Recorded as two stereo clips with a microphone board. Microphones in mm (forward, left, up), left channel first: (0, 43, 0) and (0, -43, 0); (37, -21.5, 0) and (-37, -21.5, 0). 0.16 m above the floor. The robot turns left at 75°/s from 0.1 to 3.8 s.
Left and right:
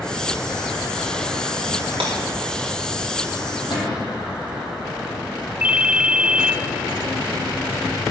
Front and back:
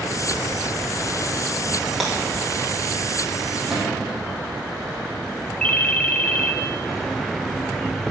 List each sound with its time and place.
2.0 s breaking glass: 95° right, 5.5 m; by 2.1 s 100° right, 5.5 m
3.7 s a cupboard door: 100° left, 4.5 m; by 4.2 s 95° left, 4.5 m
5.6 s a ringtone: 50° right, 0.7 m